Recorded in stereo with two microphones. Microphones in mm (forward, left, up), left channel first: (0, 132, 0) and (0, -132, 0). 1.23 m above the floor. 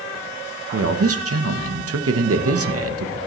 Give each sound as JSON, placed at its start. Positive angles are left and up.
{"t": 0.7, "sound": "a man speaking", "side_deg": -60, "distance_m": 0.9}